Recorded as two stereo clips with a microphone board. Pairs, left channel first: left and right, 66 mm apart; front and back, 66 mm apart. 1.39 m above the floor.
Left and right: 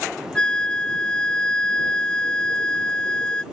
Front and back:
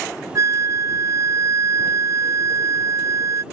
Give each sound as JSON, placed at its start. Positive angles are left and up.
{"t": 0.3, "sound": "a flute", "azimuth_deg": 160}